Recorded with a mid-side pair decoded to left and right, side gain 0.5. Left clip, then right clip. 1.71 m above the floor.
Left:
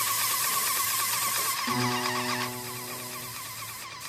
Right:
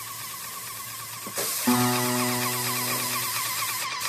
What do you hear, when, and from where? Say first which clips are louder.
1.7 s a guitar: right 7 dB; 65° right, 3.5 m